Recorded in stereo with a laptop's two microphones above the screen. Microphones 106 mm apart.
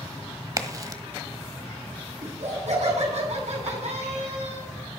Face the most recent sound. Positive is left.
turn(degrees=-85)